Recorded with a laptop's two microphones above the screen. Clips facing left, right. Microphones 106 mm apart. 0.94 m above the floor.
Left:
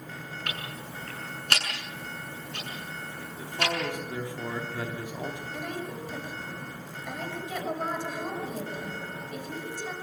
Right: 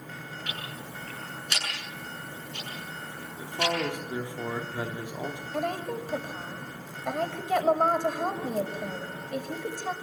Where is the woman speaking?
60° right (ahead or behind), 5 m.